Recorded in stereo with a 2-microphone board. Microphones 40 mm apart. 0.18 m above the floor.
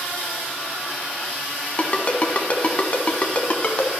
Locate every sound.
1.8 s a ringtone: 35° left (ahead or behind), 0.7 m